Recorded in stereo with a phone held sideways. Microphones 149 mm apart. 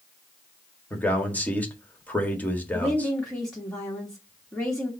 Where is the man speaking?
10° left (ahead or behind), 1.6 m.